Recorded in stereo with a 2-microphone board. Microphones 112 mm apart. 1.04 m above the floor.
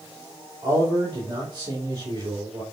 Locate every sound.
0.6 s a man speaking: 40° right (ahead or behind), 3 m